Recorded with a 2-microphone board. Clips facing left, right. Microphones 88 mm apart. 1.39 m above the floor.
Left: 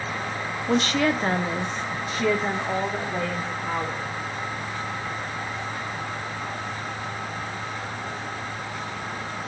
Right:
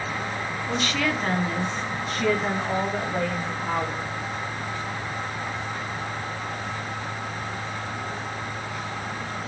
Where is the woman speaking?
45° left (ahead or behind), 1.1 m; by 4.1 s 5° right (ahead or behind), 3.5 m.